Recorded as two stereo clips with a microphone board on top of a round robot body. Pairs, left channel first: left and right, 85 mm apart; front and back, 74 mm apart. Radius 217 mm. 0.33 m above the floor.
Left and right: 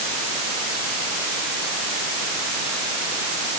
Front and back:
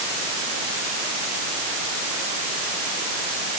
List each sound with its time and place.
Only background noise.